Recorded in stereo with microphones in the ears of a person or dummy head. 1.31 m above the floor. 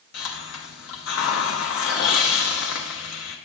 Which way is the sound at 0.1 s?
70° left (ahead or behind).